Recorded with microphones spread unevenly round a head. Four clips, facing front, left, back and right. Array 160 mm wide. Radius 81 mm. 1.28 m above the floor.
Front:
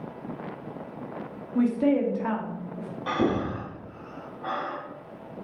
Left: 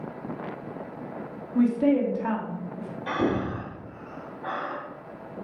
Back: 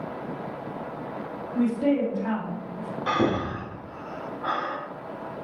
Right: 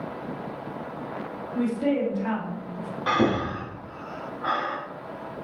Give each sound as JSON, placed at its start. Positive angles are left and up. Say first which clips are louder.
{"t": 1.6, "sound": "a woman speaking", "louder": "left 3 dB, front 1 dB", "azimuth_deg": 0, "distance_m": 2.5}
{"t": 3.1, "sound": "breathing", "louder": "right 3 dB, back 1 dB", "azimuth_deg": -45, "distance_m": 2.0}